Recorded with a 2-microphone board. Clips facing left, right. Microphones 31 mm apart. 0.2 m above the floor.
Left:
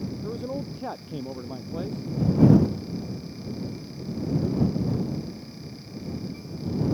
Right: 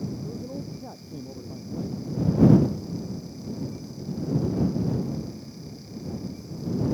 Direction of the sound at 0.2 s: 70° left (ahead or behind).